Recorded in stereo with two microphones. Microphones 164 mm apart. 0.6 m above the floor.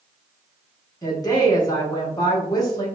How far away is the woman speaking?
About 0.7 m.